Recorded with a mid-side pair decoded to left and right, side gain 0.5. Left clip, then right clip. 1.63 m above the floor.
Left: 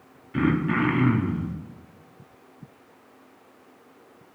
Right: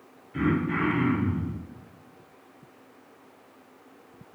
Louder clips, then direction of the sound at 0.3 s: Left 3 dB; 50° left.